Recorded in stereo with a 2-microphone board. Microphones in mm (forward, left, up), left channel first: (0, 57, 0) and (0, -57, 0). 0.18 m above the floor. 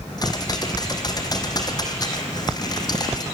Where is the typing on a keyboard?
35° left (ahead or behind), 2.5 m.